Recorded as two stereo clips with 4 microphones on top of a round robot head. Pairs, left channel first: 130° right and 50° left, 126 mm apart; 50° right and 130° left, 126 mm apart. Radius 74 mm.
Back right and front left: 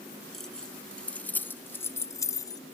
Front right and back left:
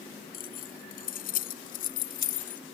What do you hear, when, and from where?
0.3 s keys jangling: 45° right; by 2.6 s 70° right